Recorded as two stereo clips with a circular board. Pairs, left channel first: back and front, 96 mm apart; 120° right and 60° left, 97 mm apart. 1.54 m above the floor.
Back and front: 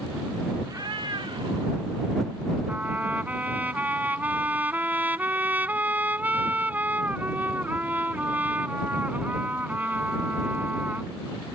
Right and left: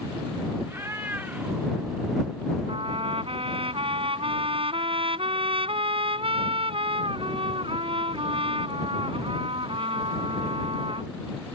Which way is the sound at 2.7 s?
70° left.